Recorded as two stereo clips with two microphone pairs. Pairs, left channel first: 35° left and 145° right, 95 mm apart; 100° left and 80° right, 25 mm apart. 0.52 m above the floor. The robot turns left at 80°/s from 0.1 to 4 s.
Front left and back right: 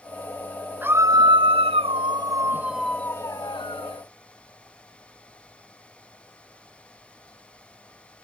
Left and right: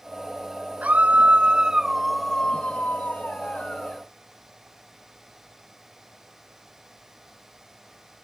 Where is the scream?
70° right; by 4.0 s 30° left.